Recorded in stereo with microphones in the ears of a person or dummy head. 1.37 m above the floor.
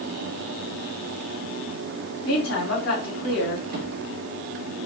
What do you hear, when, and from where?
2.2 s a woman speaking: 60° left (ahead or behind), 1.1 m
3.7 s a drawer: 45° right (ahead or behind), 0.8 m